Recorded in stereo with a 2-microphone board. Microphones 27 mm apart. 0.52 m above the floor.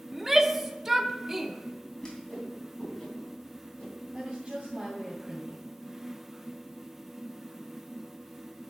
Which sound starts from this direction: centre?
A shout, at 0.1 s.